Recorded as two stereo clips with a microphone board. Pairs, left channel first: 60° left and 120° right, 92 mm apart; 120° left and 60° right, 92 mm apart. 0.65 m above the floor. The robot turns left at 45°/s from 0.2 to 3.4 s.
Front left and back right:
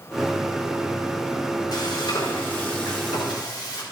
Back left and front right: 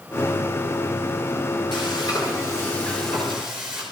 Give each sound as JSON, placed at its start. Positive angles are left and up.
{"t": 1.7, "sound": "frying", "azimuth_deg": 100, "distance_m": 3.0}